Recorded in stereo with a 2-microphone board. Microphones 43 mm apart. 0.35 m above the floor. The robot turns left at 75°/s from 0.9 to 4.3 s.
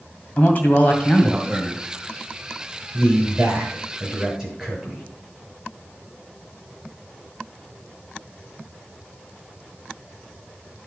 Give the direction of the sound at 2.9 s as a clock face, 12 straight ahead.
2 o'clock.